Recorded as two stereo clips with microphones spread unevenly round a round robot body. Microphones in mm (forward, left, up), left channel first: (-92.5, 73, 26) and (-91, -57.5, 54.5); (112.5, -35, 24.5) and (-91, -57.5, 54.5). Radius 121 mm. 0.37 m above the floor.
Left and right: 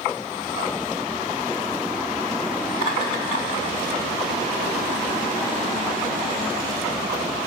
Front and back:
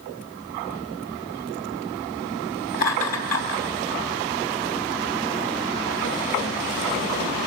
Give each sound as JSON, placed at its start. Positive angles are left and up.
{"t": 2.7, "sound": "laughter", "azimuth_deg": 50, "distance_m": 3.5}